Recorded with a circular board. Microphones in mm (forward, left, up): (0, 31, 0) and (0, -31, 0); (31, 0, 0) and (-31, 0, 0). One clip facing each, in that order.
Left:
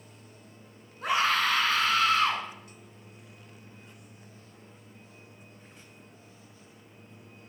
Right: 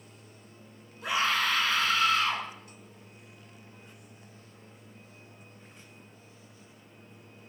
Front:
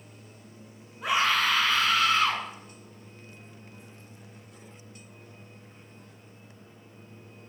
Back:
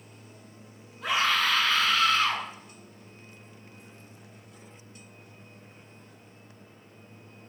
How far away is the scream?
About 1.4 m.